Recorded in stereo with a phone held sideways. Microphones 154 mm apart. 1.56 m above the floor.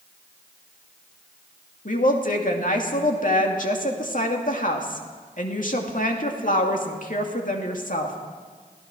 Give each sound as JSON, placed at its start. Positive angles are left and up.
{"t": 1.9, "sound": "a woman speaking", "side_deg": 60, "distance_m": 2.5}